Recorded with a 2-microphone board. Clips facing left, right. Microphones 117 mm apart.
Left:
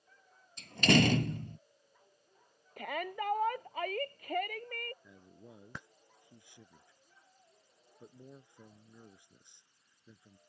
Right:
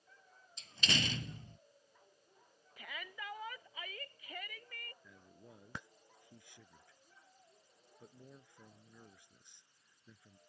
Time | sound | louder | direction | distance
0.6 | a door slam | left 13 dB | 60° left (ahead or behind) | ?
2.8 | a shout | left 12 dB | 55° left (ahead or behind) | ?
5.0 | a man speaking | left 4 dB | 20° left (ahead or behind) | ?